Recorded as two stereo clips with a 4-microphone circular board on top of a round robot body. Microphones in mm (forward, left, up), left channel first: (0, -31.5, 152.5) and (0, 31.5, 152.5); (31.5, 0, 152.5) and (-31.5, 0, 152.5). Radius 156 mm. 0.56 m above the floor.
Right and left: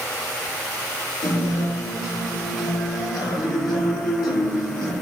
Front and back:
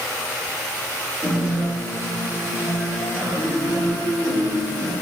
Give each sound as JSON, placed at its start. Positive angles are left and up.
{"t": 1.2, "sound": "a guitar", "azimuth_deg": -75, "distance_m": 0.9}